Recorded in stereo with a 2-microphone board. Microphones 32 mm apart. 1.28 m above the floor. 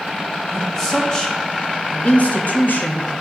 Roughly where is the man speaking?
Centre.